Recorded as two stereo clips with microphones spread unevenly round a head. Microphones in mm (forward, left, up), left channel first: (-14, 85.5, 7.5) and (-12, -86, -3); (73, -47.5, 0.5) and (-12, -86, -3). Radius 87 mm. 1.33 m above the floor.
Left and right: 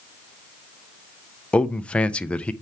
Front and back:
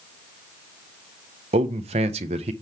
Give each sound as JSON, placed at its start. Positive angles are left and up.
{"t": 1.5, "sound": "a man speaking", "azimuth_deg": 175, "distance_m": 0.5}